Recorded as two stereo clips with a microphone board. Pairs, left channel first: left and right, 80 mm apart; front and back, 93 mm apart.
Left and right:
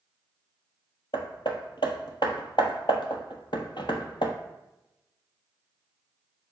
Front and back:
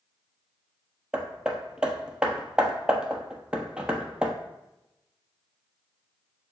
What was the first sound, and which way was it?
Hammering, 100° left.